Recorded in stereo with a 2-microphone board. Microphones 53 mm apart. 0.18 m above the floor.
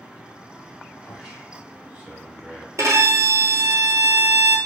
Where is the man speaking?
20° right (ahead or behind), 1.1 m.